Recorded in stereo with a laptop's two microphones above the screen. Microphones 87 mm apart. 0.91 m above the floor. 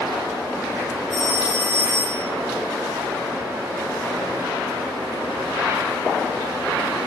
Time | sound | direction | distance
1.1 | a phone ringing | 75° right (ahead or behind) | 6 m